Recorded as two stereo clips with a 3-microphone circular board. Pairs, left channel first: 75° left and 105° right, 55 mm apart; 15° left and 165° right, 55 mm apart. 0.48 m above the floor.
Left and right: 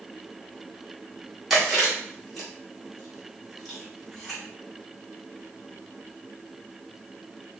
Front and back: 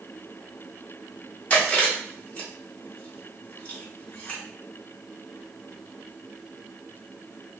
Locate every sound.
1.5 s chewing: 10° right, 1.4 m